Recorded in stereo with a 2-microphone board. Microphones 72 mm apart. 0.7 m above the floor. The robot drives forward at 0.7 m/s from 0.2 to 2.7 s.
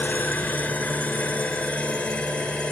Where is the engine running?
20° left (ahead or behind), 2.5 m; by 2.7 s 15° left (ahead or behind), 4.5 m.